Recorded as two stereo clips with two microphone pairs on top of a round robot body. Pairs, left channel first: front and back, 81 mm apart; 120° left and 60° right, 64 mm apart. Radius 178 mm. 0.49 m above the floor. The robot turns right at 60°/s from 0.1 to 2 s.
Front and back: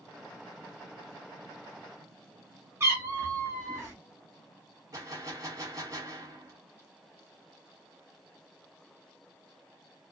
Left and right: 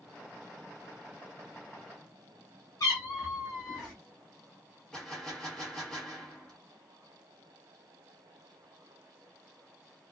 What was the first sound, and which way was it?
A cat meowing, 120° left.